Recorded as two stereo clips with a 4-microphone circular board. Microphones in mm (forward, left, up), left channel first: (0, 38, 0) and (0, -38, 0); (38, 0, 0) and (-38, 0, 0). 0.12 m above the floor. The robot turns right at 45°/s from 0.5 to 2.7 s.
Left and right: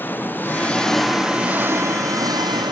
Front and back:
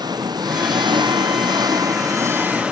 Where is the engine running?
155° left; by 2.7 s 105° right.